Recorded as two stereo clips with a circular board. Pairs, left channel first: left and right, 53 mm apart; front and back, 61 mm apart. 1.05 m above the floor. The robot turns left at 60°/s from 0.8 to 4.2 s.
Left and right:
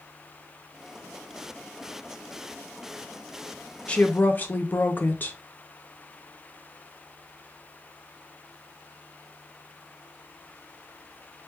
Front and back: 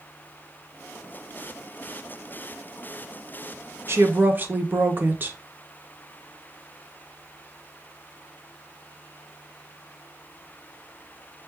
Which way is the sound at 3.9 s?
155° left.